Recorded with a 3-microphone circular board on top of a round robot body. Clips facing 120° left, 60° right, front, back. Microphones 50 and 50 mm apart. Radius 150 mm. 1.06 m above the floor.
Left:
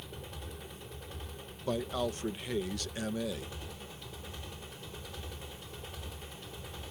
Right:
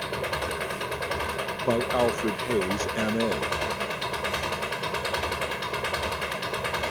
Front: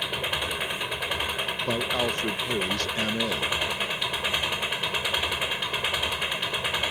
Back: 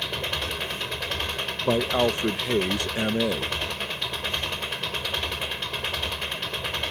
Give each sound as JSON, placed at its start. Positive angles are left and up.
{"t": 0.0, "sound": "an engine running", "azimuth_deg": -80}
{"t": 1.6, "sound": "a man speaking", "azimuth_deg": -110}